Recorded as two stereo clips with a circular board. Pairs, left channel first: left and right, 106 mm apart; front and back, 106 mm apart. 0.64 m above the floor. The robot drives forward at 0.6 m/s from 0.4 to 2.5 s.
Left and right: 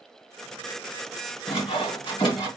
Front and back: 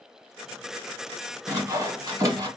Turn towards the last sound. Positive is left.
turn(degrees=135)